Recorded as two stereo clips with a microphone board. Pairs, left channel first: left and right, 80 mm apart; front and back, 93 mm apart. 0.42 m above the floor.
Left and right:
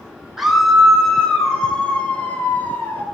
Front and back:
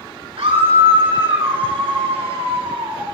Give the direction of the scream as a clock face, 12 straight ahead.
6 o'clock.